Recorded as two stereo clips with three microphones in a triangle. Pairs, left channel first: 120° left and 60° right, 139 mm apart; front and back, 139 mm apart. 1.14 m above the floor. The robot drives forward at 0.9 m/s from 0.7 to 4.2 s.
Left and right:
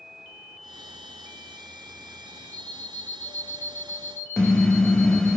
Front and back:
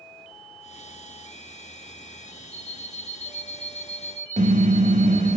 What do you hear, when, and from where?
2.5 s an alarm clock: 165° right, 4.5 m
4.4 s a car horn: 155° right, 2.5 m